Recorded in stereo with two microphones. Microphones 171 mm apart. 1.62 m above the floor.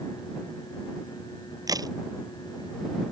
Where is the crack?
20° right (ahead or behind).